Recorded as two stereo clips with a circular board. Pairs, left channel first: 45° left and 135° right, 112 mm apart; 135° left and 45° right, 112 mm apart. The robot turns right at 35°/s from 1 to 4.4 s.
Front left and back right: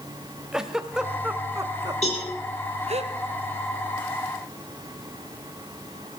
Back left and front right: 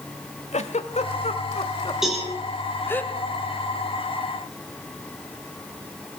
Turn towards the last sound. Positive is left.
turn(degrees=125)